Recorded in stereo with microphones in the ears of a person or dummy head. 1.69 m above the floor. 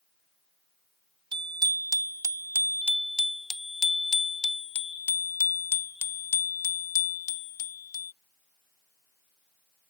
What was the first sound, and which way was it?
A bicycle bell, 25° right (ahead or behind).